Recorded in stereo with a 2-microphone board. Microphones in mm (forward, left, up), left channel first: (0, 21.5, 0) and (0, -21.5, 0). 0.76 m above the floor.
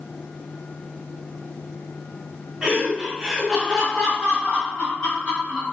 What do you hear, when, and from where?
2.6 s laughter: 25° right (ahead or behind), 1.0 m; by 5.6 s 25° left (ahead or behind), 1.8 m